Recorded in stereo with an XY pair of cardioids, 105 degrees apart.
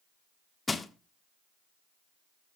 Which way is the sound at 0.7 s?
25° left.